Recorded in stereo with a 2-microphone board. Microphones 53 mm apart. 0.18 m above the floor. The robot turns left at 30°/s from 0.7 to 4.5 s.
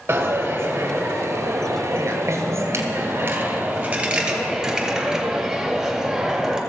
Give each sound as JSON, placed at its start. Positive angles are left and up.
{"t": 0.1, "sound": "a dropped coin", "azimuth_deg": -55, "distance_m": 1.6}